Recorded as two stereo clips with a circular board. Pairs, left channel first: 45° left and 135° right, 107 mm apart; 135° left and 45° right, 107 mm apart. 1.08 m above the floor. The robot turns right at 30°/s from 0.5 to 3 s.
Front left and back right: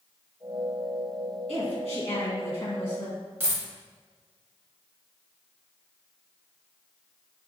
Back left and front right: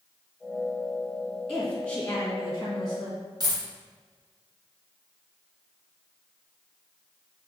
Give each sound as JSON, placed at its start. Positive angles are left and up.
{"t": 1.5, "sound": "a woman speaking", "azimuth_deg": 45, "distance_m": 1.6}
{"t": 3.4, "sound": "a dropped coin", "azimuth_deg": -75, "distance_m": 0.8}